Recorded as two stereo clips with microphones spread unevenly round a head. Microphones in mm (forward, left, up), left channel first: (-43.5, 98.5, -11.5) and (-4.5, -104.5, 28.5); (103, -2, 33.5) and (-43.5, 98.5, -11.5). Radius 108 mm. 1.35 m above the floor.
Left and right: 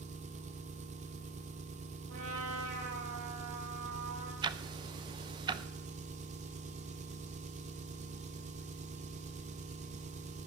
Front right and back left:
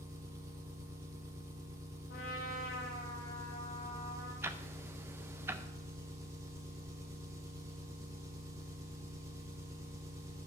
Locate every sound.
0.0 s an engine running: 135° right, 1.3 m
2.1 s a trumpet: 85° right, 8 m
4.4 s ticking: 125° right, 0.5 m